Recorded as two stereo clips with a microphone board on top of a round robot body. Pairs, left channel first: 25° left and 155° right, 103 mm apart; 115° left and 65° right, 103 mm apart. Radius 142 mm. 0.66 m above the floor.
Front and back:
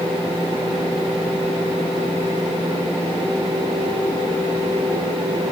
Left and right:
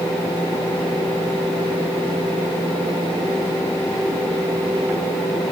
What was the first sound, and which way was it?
Only background noise.